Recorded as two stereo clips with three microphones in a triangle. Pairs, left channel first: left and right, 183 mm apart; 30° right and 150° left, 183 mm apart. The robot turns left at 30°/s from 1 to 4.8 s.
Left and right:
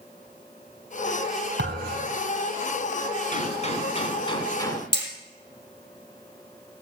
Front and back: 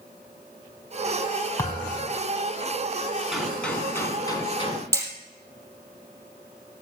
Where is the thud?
105° right, 2.5 m; by 2.2 s 120° right, 2.5 m.